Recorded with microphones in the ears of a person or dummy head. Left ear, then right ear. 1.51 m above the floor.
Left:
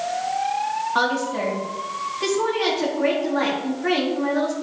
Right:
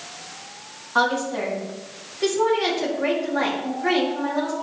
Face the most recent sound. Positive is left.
turn(degrees=-5)  # may be behind; listen again after turning